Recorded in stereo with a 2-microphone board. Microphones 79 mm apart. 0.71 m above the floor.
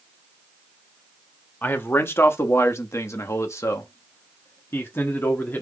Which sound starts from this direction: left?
A man speaking, at 1.6 s.